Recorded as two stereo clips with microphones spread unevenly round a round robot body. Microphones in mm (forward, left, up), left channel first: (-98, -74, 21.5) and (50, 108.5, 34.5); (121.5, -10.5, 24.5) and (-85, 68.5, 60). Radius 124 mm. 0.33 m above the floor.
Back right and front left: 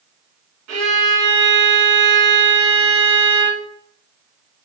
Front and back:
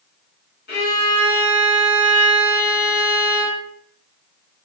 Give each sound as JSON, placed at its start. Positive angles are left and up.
{"t": 0.7, "sound": "a violin", "azimuth_deg": 20, "distance_m": 2.0}